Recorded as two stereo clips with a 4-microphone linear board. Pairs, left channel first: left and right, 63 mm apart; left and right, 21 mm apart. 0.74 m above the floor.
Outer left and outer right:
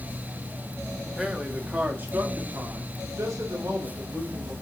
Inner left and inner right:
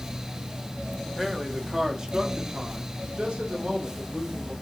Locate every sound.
1.2 s a man speaking: 5° right (ahead or behind), 1.3 m; by 4.5 s 70° right (ahead or behind), 3 m